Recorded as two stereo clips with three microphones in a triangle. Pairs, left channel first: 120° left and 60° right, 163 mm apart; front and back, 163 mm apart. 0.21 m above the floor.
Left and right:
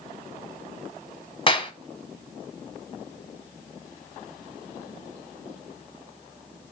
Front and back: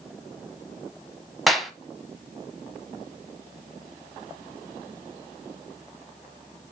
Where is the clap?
90° left, 1.0 m.